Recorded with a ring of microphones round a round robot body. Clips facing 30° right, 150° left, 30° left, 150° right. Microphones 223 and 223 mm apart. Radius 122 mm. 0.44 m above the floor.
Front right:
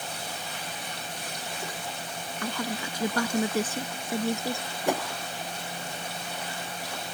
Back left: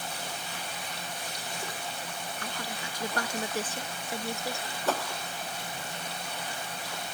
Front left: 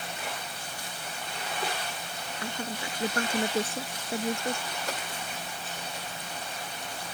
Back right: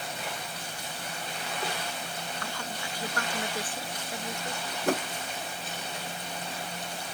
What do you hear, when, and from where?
2.4 s a woman speaking: 40° right; by 4.6 s 35° right
4.9 s a whoosh: 105° right